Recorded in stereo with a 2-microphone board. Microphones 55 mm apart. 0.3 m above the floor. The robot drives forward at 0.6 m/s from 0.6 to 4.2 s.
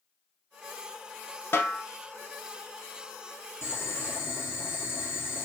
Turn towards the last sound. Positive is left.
turn(degrees=40)  # may be behind; listen again after turning